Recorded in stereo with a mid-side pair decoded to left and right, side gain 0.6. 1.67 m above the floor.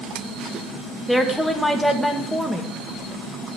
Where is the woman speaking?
5° left, 2 m.